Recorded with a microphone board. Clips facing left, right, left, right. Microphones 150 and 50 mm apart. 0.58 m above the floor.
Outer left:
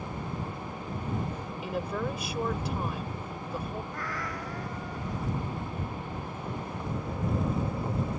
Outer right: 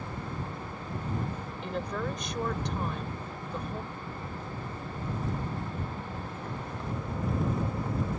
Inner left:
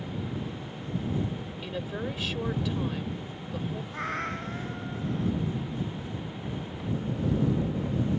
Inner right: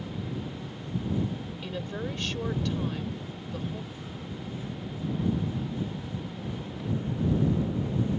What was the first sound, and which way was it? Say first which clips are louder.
A woman speaking: outer left 1 dB, inner left 1 dB; 5° left (ahead or behind).